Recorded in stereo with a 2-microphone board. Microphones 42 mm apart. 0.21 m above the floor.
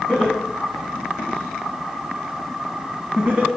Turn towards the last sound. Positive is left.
turn(degrees=-15)  # may be behind; listen again after turning